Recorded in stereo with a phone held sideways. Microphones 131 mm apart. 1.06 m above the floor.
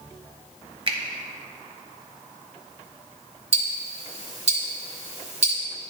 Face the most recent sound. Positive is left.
turn(degrees=-50)  # may be behind; listen again after turning